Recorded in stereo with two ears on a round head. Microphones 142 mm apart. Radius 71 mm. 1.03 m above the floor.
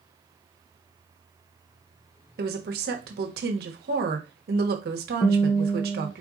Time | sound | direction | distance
2.4 | a woman speaking | 65° right (ahead or behind) | 1.1 m
5.2 | a guitar | 20° left (ahead or behind) | 0.6 m